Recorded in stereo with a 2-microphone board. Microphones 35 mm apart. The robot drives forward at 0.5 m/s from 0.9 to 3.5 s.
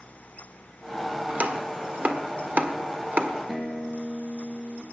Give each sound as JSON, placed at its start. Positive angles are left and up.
{"t": 1.3, "sound": "chopping", "side_deg": -50, "distance_m": 1.5}
{"t": 3.5, "sound": "a guitar", "side_deg": 0, "distance_m": 1.6}